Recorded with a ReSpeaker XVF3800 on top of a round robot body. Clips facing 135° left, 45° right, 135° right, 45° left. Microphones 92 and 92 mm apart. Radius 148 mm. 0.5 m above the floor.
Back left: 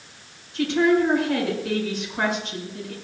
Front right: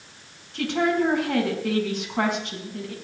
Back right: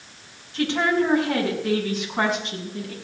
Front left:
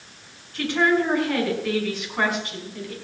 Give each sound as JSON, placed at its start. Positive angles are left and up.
{"t": 0.5, "sound": "a woman speaking", "azimuth_deg": -65, "distance_m": 5.5}